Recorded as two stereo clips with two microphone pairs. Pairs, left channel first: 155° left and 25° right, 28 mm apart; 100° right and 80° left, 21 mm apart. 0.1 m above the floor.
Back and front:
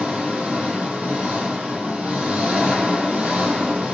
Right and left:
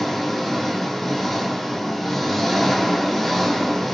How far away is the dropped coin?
I don't hear a dropped coin.